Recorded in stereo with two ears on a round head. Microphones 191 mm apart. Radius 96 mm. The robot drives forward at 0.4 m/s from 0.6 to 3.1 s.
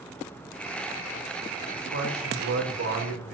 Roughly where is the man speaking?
Right.